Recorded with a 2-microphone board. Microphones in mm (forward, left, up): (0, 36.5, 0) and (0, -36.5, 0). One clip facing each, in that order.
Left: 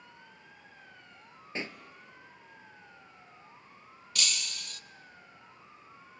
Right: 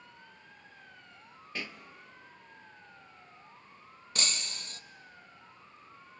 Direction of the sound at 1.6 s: 25° left (ahead or behind).